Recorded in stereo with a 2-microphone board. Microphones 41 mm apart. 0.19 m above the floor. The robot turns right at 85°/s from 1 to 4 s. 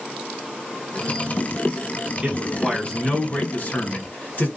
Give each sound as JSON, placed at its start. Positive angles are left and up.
{"t": 2.2, "sound": "a man speaking", "azimuth_deg": -35, "distance_m": 1.4}